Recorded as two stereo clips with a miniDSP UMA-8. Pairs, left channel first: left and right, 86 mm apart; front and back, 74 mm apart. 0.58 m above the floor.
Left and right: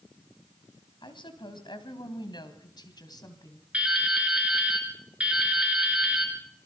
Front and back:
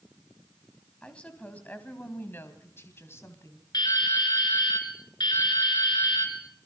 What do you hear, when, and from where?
1.0 s a woman speaking: 75° left, 3 m; by 3.6 s 50° left, 3 m
3.7 s dripping: 15° right, 4 m